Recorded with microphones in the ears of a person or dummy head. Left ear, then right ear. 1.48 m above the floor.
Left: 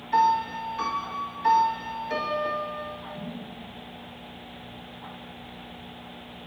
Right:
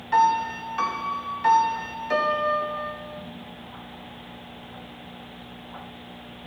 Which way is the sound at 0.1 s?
45° right (ahead or behind).